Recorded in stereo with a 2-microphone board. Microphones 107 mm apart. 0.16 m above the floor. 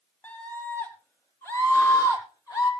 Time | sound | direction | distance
0.2 | a scream | 15° left (ahead or behind) | 4 m